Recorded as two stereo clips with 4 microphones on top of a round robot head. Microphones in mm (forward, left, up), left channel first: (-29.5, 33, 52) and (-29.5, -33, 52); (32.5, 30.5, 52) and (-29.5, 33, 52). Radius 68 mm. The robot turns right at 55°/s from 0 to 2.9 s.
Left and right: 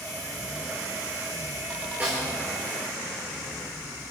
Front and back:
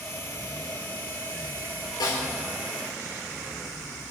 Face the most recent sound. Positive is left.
turn(degrees=30)